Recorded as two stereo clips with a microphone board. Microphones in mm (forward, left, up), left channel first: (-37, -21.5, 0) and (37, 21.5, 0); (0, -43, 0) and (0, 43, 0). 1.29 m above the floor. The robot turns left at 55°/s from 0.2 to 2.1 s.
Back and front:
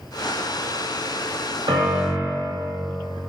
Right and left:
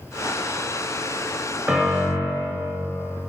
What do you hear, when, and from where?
1.7 s a piano: 10° left, 1.5 m; by 2.5 s 10° right, 1.5 m